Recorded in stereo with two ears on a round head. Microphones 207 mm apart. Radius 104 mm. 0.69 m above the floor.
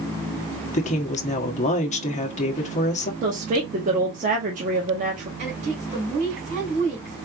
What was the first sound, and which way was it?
A woman speaking, 30° left (ahead or behind).